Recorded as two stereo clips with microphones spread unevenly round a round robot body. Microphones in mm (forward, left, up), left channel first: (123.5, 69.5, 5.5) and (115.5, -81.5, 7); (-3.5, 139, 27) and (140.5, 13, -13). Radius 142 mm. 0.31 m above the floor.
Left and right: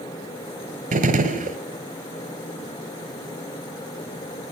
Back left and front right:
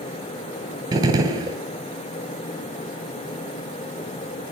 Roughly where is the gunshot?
Right.